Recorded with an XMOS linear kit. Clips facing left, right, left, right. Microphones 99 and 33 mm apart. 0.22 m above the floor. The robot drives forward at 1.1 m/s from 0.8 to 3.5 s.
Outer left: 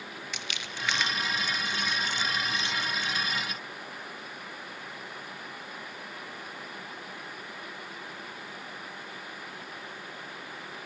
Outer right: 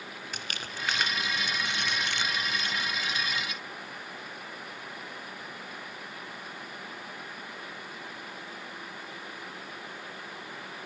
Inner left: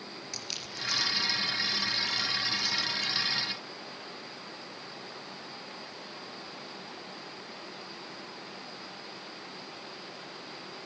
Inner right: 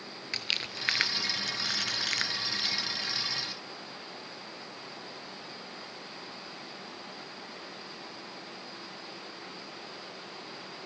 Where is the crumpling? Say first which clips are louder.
Outer right 2 dB, inner right 8 dB; 45° right (ahead or behind), 1.7 m; by 3.1 s 40° right (ahead or behind), 1.9 m.